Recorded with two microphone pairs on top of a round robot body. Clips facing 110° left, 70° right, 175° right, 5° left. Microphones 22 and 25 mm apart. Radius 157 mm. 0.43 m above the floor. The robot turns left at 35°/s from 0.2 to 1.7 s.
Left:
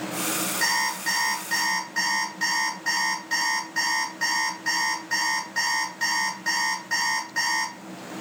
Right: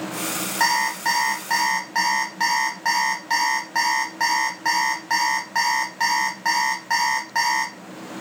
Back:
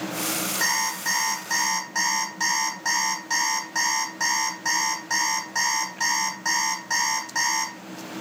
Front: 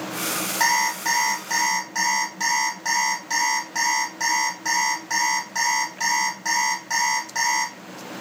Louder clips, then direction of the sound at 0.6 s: Right 6 dB, front 5 dB; 45° right.